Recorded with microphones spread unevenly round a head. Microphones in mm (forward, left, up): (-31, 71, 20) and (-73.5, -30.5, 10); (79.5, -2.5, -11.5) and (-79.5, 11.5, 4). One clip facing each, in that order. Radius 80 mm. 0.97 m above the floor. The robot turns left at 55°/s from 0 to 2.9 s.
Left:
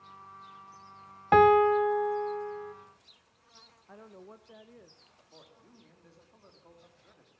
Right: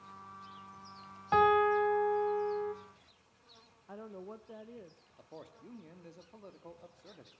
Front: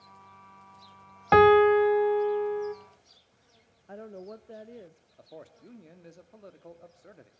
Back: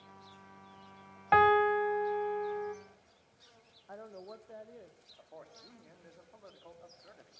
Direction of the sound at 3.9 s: 45° right.